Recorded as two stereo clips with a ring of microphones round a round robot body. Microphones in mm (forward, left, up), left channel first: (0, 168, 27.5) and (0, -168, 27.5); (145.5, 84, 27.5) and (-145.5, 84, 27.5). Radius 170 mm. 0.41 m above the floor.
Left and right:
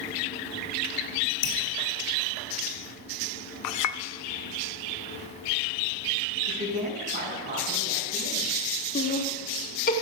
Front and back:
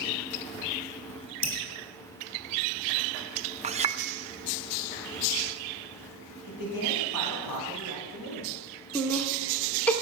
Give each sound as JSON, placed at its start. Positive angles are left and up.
{"t": 1.4, "sound": "dripping", "azimuth_deg": 115, "distance_m": 3.5}
{"t": 3.6, "sound": "a clink", "azimuth_deg": 115, "distance_m": 0.5}
{"t": 6.5, "sound": "a man speaking", "azimuth_deg": -25, "distance_m": 4.0}
{"t": 8.9, "sound": "laughter", "azimuth_deg": 80, "distance_m": 1.1}